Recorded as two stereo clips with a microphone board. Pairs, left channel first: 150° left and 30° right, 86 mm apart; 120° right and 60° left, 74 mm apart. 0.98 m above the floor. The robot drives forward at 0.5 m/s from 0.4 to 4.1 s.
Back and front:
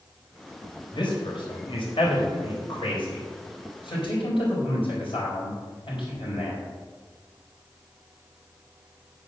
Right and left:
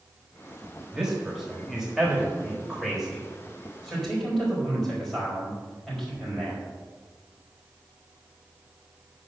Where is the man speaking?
140° left, 3 m; by 6.6 s 155° left, 4.5 m.